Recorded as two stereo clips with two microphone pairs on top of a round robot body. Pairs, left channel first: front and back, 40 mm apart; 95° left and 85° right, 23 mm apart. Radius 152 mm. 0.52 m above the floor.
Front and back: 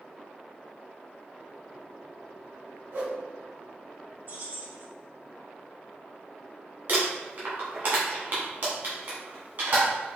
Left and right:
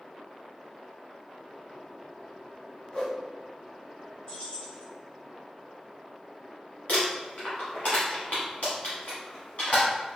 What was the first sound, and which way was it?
A whoosh, 155° left.